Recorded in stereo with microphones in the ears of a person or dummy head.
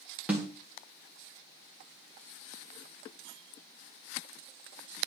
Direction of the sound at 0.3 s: 5° right (ahead or behind).